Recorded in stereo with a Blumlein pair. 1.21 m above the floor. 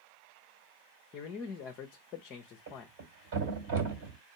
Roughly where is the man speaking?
Ahead left.